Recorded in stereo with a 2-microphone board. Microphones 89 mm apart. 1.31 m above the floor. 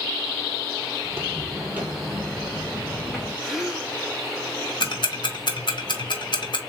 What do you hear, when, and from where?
1.0 s footsteps: 25° right (ahead or behind), 1.5 m; by 3.3 s 5° right (ahead or behind), 2 m
3.4 s a gasp: centre (ahead or behind), 1.6 m
4.8 s ticking: 60° left (ahead or behind), 1.1 m